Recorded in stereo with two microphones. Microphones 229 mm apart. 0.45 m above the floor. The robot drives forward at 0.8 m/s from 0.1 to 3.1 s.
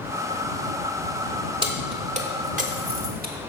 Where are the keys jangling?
25° right (ahead or behind), 1.5 m; by 3.4 s 40° right (ahead or behind), 0.9 m.